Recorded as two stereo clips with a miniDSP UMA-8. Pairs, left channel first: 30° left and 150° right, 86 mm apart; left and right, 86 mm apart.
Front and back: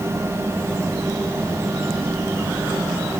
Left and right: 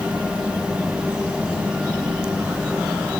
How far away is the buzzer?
I don't hear a buzzer.